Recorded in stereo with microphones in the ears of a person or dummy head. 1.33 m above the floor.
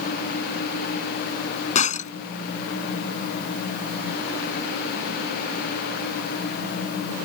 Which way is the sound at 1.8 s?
45° left (ahead or behind).